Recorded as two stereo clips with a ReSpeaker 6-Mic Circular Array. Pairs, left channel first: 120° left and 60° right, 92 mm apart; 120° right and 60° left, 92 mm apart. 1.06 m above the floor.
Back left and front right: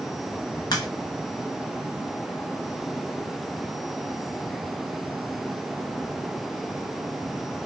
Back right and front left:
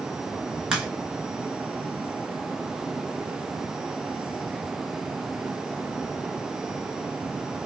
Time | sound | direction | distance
0.7 | a crack | 135° left | 1.3 m